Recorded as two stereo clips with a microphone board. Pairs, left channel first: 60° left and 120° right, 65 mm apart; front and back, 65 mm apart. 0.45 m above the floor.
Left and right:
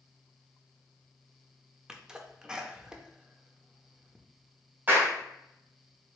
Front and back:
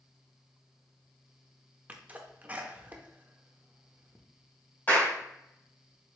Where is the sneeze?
Straight behind, 0.8 m.